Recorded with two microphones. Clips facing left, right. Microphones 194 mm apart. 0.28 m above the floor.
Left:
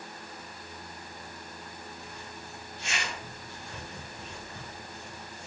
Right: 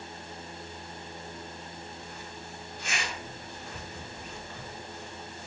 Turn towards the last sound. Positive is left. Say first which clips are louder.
# right 1 dB
turn(degrees=25)  # may be behind; listen again after turning